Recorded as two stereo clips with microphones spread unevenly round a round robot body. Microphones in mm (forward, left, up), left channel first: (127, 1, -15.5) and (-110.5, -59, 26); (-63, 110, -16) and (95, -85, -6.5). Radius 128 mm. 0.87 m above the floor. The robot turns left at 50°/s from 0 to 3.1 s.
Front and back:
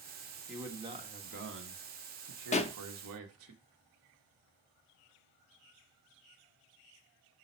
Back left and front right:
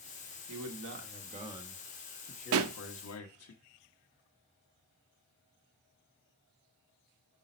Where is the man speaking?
70° right, 1.2 m; by 3.5 s 155° left, 1.2 m.